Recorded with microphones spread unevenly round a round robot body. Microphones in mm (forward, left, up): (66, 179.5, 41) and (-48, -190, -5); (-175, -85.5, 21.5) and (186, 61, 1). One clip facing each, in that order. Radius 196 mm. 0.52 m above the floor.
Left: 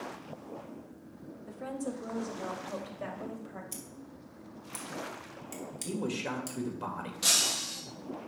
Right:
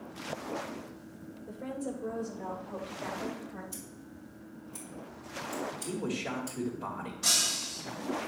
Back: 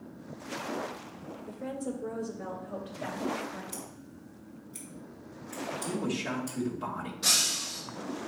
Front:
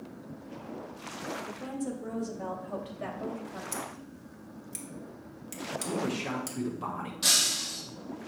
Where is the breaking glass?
85° left, 3 m.